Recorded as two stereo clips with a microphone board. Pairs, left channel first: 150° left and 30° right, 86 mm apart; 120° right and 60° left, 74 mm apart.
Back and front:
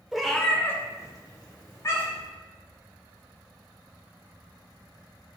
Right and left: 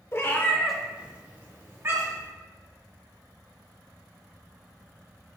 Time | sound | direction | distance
0.1 | a cat meowing | 110° right | 0.5 m